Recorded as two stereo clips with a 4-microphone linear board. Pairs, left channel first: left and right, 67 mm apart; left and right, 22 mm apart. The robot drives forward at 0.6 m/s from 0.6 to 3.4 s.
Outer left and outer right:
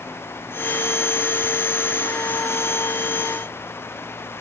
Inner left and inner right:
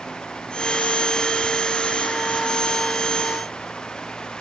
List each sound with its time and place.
Only background noise.